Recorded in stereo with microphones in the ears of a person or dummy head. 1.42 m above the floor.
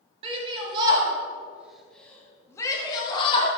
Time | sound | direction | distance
0.2 | a shout | 35° right (ahead or behind) | 2.5 m